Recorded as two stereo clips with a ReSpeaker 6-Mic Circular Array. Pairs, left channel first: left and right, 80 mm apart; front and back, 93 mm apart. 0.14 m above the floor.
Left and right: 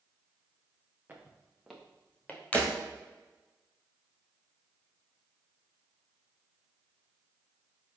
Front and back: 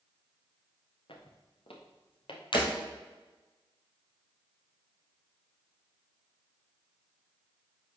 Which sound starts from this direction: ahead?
Breaking glass, at 2.5 s.